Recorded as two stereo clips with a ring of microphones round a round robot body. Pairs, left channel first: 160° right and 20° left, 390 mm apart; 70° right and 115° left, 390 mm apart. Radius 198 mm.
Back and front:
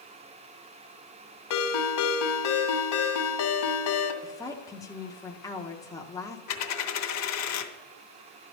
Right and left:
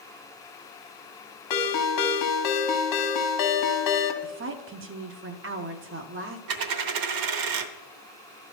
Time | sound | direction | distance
1.5 | a ringtone | 110° right | 1.6 m
4.2 | a woman speaking | 130° left | 0.8 m
6.5 | a dropped coin | 150° left | 0.9 m